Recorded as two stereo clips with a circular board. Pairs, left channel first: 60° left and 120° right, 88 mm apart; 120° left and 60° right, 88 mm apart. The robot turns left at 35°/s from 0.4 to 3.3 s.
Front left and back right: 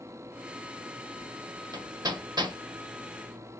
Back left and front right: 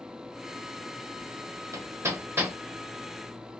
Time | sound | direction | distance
1.7 | hammering | 95° right | 0.7 m